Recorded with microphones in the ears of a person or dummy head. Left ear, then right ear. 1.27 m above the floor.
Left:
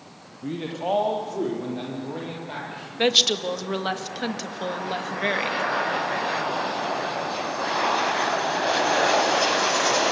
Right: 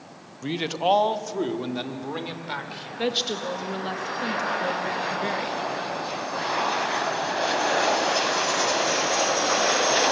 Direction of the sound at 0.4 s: 80° right.